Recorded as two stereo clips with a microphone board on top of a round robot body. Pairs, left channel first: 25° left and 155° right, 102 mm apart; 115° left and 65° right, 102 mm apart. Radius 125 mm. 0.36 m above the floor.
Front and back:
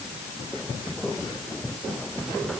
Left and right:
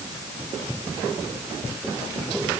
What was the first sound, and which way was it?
Only background noise.